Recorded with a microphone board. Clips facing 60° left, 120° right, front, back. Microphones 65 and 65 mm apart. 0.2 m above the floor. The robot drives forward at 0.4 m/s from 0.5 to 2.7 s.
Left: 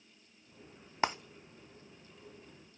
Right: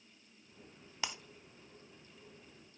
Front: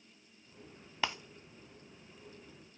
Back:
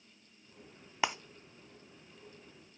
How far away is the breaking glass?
About 0.5 m.